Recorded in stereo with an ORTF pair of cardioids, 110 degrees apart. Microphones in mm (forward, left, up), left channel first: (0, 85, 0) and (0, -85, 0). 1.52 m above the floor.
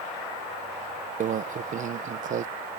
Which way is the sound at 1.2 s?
50° right.